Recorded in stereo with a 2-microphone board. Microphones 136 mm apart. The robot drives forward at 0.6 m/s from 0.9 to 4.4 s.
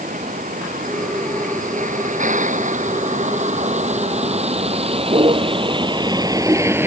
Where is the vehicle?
75° right (ahead or behind); by 6.9 s 15° right (ahead or behind).